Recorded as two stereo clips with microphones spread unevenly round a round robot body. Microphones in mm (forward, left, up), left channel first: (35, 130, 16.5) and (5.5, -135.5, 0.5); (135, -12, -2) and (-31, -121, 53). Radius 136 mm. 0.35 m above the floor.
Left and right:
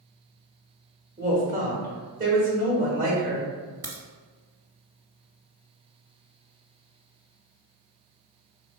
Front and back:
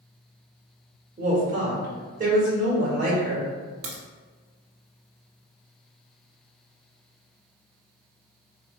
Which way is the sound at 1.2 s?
105° right.